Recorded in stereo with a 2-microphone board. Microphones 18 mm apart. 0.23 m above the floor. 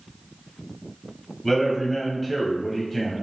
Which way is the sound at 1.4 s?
10° left (ahead or behind).